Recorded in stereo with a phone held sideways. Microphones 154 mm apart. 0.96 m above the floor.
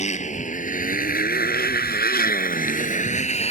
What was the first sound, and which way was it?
A motorcycle, 50° left (ahead or behind).